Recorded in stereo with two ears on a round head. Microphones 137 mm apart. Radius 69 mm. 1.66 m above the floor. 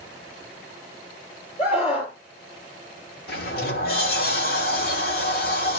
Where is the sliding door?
70° left (ahead or behind), 2.5 m.